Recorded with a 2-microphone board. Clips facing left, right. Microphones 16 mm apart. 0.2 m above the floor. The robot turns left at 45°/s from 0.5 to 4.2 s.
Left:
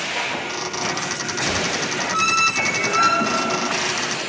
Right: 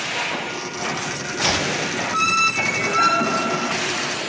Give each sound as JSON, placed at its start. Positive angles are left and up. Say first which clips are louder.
{"t": 1.4, "sound": "chopping", "louder": "right 3 dB", "side_deg": -65}